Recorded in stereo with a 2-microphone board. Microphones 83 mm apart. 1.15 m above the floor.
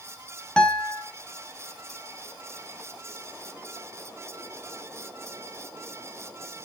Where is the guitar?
10° left (ahead or behind), 3 m.